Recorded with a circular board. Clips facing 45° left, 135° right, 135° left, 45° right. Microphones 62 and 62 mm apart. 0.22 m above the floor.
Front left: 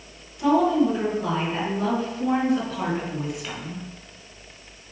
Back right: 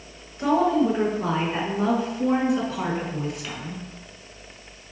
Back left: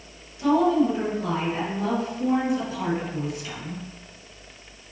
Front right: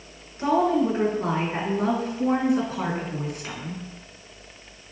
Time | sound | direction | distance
0.4 | a woman speaking | 80° right | 2.5 m